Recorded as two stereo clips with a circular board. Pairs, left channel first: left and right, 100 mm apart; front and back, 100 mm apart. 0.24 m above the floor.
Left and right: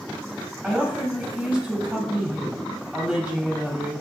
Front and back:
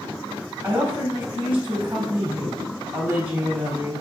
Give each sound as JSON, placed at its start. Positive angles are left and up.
{"t": 0.6, "sound": "a woman speaking", "azimuth_deg": -155, "distance_m": 1.1}